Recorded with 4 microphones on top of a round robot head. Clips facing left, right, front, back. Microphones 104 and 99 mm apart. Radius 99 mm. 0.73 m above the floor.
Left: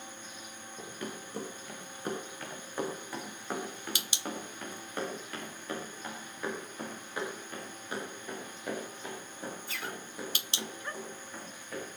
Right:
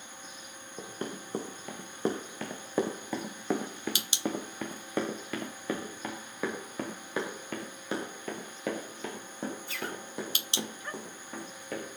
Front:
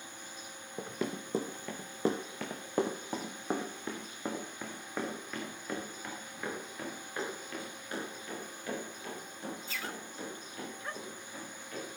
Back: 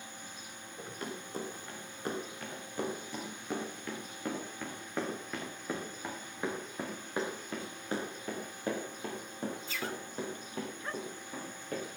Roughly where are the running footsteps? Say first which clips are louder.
Right 3 dB, front 6 dB; ahead.